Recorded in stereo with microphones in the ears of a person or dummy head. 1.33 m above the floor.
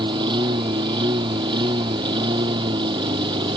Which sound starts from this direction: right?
A lawn mower, at 0.0 s.